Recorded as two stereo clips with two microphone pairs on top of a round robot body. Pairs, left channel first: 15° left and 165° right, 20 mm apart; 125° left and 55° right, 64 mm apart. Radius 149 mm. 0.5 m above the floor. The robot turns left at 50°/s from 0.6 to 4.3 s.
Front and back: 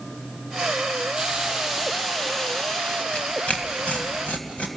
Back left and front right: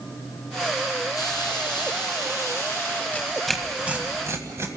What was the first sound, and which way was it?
A hiss, 155° left.